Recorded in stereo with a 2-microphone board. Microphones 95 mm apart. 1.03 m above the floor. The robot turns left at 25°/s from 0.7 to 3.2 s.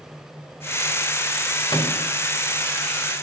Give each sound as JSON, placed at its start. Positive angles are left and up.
{"t": 1.7, "sound": "a microwave", "side_deg": 55, "distance_m": 1.4}